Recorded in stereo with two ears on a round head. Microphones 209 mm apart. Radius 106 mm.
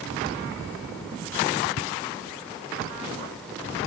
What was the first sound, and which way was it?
Footsteps, 45° left (ahead or behind).